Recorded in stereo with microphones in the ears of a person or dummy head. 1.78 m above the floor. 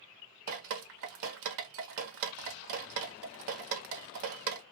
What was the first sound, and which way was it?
Dripping, 70° right (ahead or behind).